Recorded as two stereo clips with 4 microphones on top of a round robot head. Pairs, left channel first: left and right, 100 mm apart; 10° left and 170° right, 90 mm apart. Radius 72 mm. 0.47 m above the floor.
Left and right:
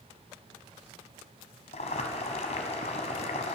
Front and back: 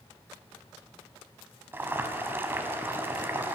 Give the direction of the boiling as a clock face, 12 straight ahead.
8 o'clock.